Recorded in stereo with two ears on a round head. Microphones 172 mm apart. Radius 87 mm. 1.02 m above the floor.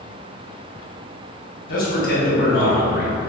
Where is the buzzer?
I don't hear a buzzer.